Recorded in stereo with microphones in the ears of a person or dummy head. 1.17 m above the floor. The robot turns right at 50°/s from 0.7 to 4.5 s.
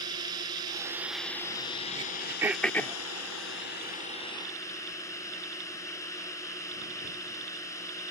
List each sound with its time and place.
0.0 s a drone: 25° right; by 8.1 s 165° left
1.9 s throat clearing: 30° right (ahead or behind); by 3.0 s 20° left (ahead or behind)